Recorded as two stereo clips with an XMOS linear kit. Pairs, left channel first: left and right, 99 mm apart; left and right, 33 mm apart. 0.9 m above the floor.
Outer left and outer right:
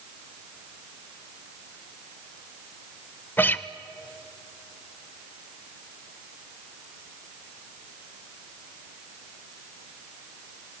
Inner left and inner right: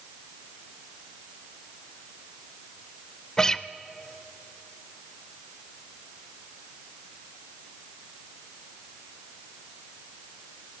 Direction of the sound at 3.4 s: 20° left (ahead or behind).